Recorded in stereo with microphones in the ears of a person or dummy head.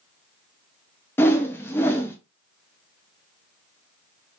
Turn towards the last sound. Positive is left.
turn(degrees=5)  # may be behind; listen again after turning